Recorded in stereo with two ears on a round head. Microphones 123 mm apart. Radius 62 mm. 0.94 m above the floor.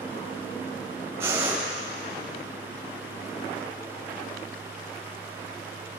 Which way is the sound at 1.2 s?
20° right (ahead or behind).